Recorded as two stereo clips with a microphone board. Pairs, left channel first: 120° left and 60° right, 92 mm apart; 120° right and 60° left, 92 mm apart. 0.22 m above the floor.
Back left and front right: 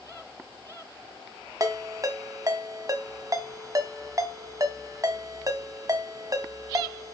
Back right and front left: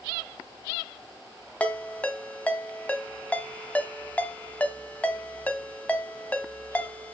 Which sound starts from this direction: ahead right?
A ringtone, at 1.6 s.